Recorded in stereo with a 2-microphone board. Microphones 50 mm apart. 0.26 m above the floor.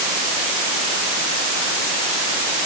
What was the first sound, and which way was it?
Only background noise.